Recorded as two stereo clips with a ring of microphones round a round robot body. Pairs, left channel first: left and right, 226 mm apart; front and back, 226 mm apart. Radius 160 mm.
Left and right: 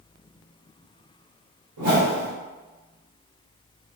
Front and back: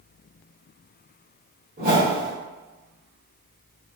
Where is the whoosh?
115° right, 1.2 m.